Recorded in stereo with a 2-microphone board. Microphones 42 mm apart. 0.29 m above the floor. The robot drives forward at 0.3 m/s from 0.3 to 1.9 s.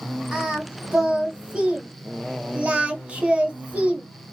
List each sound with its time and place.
0.3 s singing: 20° right (ahead or behind), 1.0 m; by 4.0 s 30° right (ahead or behind), 0.7 m